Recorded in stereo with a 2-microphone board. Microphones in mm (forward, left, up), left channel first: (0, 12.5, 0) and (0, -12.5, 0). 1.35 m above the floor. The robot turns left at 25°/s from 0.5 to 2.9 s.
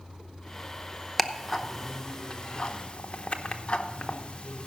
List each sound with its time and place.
1.2 s ticking: centre (ahead or behind), 0.7 m; by 4.7 s 40° left (ahead or behind), 0.7 m